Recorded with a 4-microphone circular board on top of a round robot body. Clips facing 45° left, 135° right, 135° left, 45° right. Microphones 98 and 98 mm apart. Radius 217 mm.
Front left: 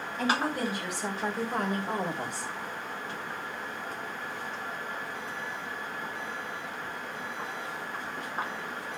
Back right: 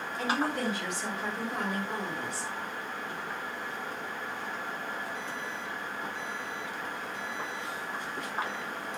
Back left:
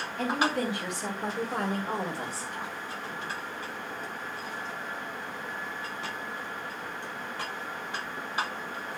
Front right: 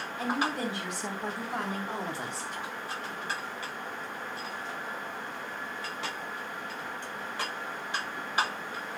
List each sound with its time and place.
0.2 s a woman speaking: 140° left, 3.5 m; by 2.5 s 85° left, 2.5 m